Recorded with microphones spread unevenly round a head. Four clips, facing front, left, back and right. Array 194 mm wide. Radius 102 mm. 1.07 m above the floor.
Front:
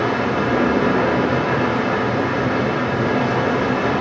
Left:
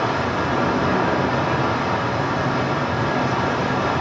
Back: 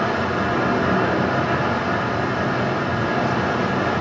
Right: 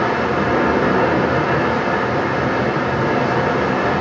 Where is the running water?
50° right, 0.9 m.